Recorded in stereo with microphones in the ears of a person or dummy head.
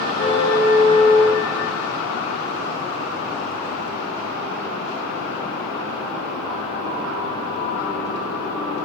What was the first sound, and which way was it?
A car horn, 35° left (ahead or behind).